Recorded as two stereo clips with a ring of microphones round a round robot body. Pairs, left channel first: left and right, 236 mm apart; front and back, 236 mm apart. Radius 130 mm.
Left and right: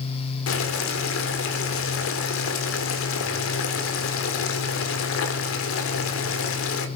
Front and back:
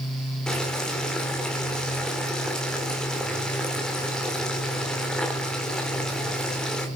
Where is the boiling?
85° left, 1.7 m.